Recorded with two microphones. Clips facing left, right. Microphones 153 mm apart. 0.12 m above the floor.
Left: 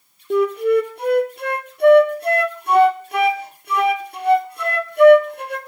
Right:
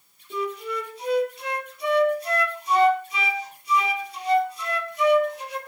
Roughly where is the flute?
Left.